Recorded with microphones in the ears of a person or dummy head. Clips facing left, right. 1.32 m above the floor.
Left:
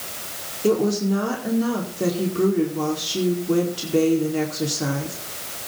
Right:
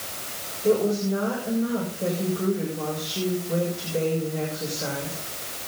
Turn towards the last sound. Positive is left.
turn(degrees=80)